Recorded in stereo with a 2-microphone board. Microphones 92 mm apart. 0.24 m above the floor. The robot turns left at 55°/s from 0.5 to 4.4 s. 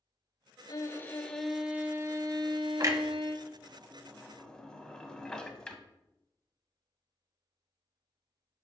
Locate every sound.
0.7 s a violin: 45° left, 0.9 m; by 3.5 s 110° right, 0.9 m
2.8 s a clunk: 40° right (ahead or behind), 0.8 m; by 5.8 s 10° left (ahead or behind), 0.8 m